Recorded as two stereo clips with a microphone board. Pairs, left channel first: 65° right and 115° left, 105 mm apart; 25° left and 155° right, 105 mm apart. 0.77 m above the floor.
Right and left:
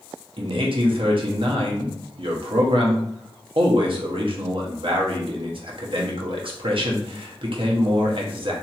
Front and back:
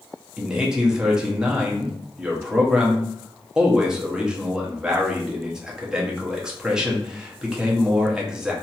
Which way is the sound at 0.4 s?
120° left.